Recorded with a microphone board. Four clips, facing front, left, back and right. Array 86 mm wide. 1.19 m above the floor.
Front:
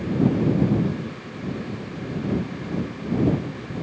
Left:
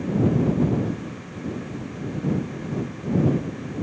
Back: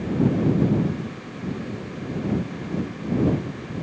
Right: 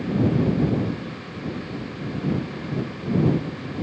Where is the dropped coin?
No dropped coin in this recording.